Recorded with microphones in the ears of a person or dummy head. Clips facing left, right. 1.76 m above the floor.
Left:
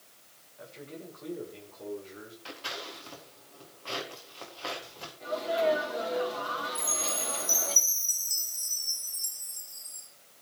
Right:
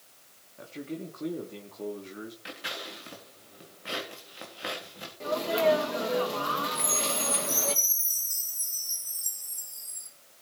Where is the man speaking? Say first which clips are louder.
Right 7 dB; 50° right (ahead or behind), 3 m; by 2.4 s 70° right (ahead or behind), 3 m.